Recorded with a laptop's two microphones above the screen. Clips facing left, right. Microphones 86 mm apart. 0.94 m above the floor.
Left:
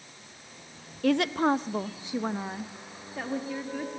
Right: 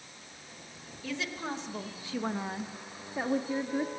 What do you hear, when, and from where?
1.0 s a woman speaking: 65° left (ahead or behind), 1.0 m; by 3.9 s 20° right (ahead or behind), 2 m